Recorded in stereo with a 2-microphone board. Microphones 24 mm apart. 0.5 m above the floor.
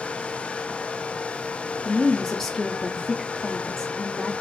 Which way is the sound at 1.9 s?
15° left (ahead or behind).